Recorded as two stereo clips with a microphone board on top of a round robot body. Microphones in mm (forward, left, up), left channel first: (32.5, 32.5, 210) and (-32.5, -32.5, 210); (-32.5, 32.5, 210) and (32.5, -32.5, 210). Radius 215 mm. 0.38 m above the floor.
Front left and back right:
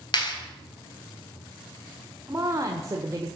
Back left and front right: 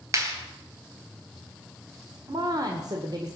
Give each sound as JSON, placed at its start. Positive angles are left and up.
{"t": 0.1, "sound": "a clap", "azimuth_deg": 10, "distance_m": 3.0}
{"t": 2.3, "sound": "a woman speaking", "azimuth_deg": -80, "distance_m": 1.8}